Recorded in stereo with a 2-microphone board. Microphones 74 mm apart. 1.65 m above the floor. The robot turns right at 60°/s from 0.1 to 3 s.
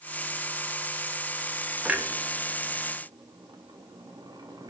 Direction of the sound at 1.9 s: 15° right (ahead or behind).